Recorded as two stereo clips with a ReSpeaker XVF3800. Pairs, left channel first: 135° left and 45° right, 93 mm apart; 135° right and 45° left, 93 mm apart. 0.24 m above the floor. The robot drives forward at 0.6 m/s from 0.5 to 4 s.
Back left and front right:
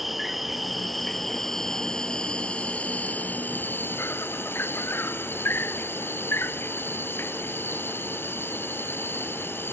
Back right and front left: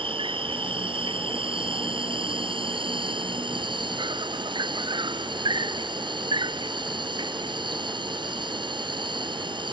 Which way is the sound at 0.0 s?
45° left.